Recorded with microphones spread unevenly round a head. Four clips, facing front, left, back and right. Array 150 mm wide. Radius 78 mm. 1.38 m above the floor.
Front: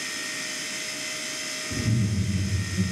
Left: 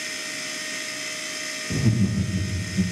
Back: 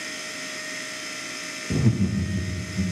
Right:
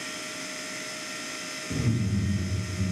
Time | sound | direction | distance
1.7 | laughter | 155° left | 0.6 m